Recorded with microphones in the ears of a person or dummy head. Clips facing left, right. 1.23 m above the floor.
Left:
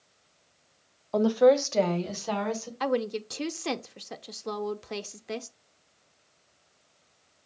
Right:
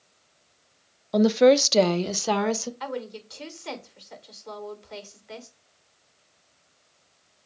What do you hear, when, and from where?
1.1 s a woman speaking: 20° right (ahead or behind), 0.9 m; by 2.7 s 85° right, 1.7 m
2.8 s a woman speaking: 65° left (ahead or behind), 0.8 m